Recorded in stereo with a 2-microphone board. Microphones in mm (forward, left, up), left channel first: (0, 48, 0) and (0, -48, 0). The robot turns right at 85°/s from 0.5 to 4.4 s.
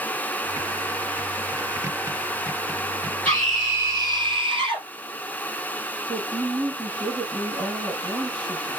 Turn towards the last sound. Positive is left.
turn(degrees=-50)  # may be behind; listen again after turning